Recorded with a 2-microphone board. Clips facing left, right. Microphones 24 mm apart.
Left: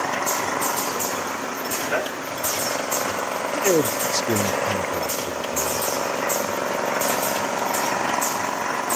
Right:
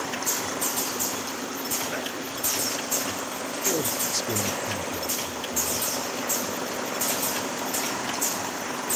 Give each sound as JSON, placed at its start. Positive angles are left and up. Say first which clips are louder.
{"t": 0.0, "sound": "an engine running", "louder": "left 6 dB", "side_deg": 50}
{"t": 3.5, "sound": "a man speaking", "louder": "left 8 dB", "side_deg": 70}